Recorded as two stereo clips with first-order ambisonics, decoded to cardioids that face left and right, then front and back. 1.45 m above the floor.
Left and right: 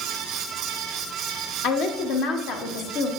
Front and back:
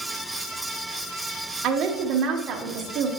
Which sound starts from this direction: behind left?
A woman speaking, at 1.6 s.